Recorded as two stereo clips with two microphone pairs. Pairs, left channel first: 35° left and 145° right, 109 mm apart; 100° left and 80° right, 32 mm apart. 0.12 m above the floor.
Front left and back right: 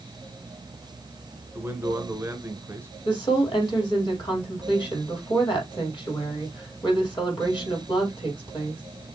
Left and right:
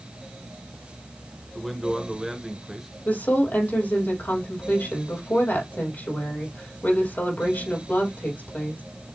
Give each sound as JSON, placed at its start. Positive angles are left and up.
{"t": 1.6, "sound": "a man speaking", "azimuth_deg": -155, "distance_m": 1.1}
{"t": 3.0, "sound": "a woman speaking", "azimuth_deg": 75, "distance_m": 3.5}